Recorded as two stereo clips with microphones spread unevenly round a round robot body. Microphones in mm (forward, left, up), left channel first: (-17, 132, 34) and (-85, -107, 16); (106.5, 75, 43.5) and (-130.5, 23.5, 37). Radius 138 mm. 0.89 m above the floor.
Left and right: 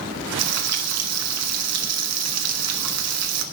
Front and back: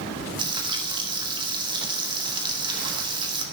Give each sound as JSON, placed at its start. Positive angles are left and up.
{"t": 0.4, "sound": "frying", "azimuth_deg": -95, "distance_m": 1.2}